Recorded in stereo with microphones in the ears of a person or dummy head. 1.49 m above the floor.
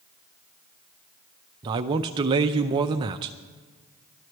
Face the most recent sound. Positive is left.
turn(degrees=-25)  # may be behind; listen again after turning